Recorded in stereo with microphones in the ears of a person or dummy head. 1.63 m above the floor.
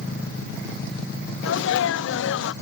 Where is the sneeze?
75° left (ahead or behind).